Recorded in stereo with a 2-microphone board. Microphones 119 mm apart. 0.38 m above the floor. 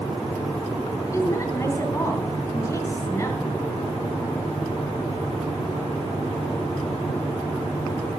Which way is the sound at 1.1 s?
25° left (ahead or behind).